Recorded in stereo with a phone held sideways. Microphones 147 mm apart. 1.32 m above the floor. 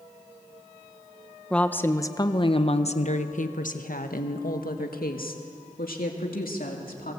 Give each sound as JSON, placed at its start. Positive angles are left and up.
{"t": 1.5, "sound": "a woman speaking", "side_deg": 5, "distance_m": 1.2}